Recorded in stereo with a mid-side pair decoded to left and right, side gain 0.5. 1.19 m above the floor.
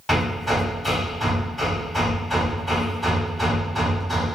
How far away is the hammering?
About 2.5 m.